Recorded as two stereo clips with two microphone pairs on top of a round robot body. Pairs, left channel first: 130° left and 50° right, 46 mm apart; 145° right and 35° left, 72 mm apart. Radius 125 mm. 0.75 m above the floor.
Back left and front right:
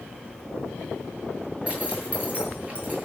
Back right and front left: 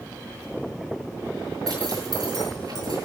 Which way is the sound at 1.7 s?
15° left.